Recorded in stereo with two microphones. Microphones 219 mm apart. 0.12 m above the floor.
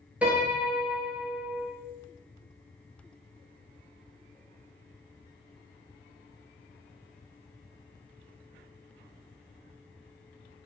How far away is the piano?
About 0.6 m.